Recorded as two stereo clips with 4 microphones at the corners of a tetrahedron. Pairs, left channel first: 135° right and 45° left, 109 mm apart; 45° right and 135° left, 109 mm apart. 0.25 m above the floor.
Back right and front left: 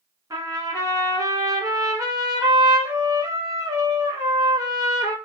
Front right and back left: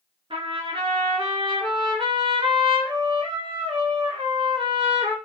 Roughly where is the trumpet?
Left.